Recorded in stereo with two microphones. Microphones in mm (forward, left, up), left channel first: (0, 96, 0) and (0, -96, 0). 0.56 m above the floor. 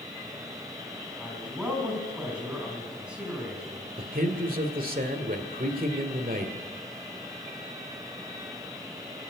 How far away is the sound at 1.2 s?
About 4.5 m.